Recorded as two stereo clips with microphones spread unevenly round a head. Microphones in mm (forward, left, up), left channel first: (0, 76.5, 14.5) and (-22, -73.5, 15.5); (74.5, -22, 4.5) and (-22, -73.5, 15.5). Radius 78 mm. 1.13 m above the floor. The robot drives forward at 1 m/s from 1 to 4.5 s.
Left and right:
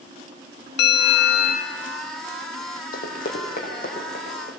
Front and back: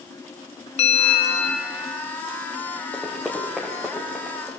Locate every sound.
0.8 s a bell: 65° left, 0.8 m; by 1.8 s 120° left, 0.9 m
2.9 s running footsteps: 110° left, 3.5 m; by 4.5 s 120° left, 5 m